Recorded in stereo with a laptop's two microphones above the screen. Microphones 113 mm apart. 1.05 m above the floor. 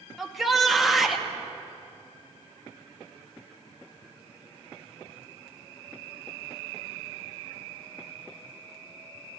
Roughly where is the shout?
Centre.